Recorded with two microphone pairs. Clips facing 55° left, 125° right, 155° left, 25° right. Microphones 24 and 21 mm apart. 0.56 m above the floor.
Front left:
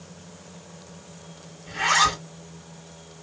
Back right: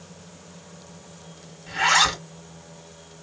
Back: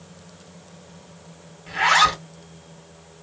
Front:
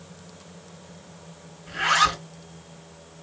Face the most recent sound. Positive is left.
turn(degrees=175)